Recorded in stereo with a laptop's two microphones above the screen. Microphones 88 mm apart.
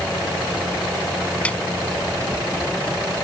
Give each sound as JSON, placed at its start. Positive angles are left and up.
{"t": 1.4, "sound": "a snare drum", "side_deg": 15}